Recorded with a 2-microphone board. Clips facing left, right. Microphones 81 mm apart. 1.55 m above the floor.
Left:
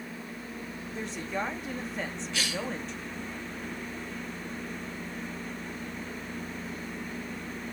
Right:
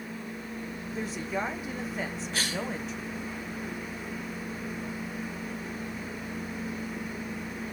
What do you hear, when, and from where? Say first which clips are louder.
0.9 s a woman speaking: right 1 dB; 5° right (ahead or behind), 0.9 m
2.3 s a cough: right 1 dB; 40° right (ahead or behind), 1.2 m